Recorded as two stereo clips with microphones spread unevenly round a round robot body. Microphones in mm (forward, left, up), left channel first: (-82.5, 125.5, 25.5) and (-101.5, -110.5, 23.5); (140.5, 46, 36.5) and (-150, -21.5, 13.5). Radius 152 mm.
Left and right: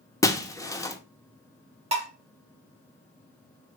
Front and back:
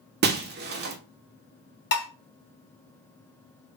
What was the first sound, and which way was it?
Breaking glass, 160° left.